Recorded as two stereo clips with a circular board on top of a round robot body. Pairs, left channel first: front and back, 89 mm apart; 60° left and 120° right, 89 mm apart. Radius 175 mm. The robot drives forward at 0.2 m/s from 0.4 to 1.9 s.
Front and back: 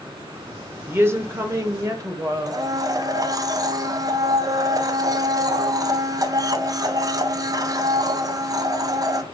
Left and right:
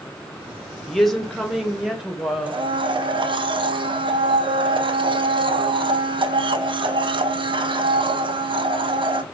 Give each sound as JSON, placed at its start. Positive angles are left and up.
{"t": 0.9, "sound": "a woman speaking", "azimuth_deg": 140, "distance_m": 0.9}
{"t": 2.5, "sound": "a blender", "azimuth_deg": -135, "distance_m": 0.6}